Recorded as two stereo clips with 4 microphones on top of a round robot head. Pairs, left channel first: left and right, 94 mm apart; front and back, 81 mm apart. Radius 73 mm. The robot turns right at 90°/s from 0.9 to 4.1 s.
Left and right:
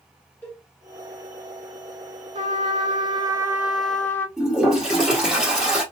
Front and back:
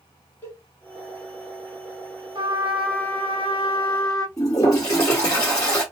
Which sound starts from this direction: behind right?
A trumpet, at 2.4 s.